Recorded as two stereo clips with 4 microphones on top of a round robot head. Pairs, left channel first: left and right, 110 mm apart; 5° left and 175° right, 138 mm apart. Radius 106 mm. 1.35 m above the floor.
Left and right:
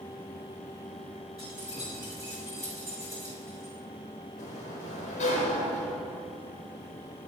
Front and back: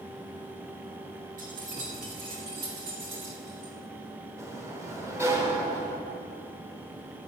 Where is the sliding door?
115° left, 1.3 m.